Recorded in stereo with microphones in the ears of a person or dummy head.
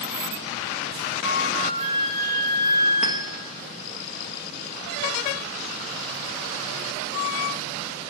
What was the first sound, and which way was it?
A flute, 85° left.